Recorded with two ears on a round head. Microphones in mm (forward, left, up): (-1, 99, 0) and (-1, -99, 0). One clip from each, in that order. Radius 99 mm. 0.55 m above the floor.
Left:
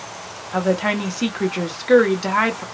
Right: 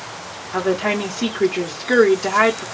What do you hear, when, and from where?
0.5 s a woman speaking: 20° left (ahead or behind), 0.7 m